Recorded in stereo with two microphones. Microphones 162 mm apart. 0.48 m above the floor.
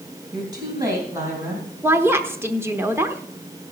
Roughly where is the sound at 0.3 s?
Right.